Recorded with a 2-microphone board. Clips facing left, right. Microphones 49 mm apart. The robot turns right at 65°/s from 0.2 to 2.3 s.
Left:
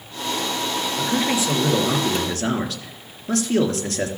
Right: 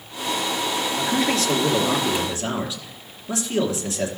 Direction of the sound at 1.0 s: 15° right.